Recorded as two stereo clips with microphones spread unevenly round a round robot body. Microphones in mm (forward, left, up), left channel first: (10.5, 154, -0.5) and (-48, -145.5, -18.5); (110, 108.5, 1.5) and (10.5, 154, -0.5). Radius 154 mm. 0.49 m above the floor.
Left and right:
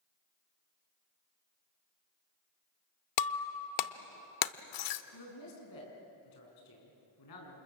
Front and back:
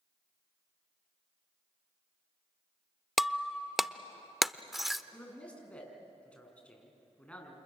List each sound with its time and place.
3.2 s breaking glass: 65° left, 0.8 m
5.1 s a man speaking: 55° left, 6 m